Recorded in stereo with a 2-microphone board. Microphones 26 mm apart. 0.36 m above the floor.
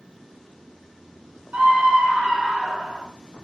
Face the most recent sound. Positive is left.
turn(degrees=-40)  # may be behind; listen again after turning